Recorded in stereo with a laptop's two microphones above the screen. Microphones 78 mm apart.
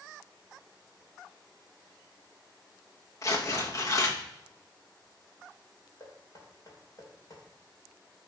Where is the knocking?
50° left (ahead or behind), 2.5 m.